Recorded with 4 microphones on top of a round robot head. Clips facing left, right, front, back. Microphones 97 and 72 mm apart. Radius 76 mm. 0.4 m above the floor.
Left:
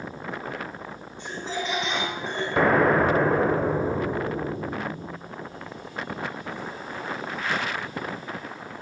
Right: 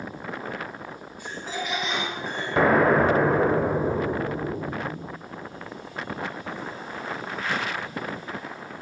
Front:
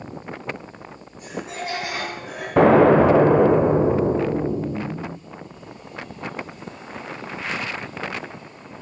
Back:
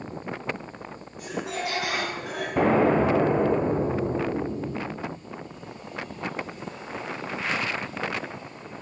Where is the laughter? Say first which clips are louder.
Left 2 dB, even; 155° left, 5 m; by 2.5 s 165° left, 5 m.